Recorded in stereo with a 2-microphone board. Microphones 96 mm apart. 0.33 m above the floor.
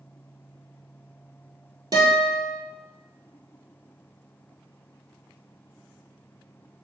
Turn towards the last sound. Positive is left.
turn(degrees=-40)  # may be behind; listen again after turning